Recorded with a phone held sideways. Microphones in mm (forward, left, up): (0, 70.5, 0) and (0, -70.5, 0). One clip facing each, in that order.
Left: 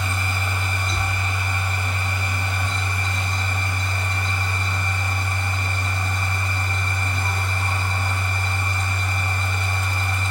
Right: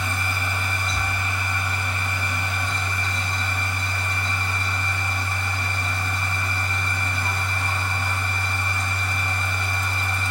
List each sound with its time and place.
0.0 s a machine running: 50° left (ahead or behind), 4 m